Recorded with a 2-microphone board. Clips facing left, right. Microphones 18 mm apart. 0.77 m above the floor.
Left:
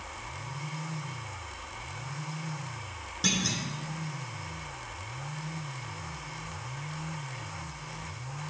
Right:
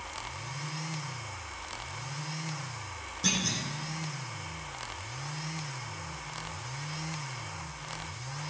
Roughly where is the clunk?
Left.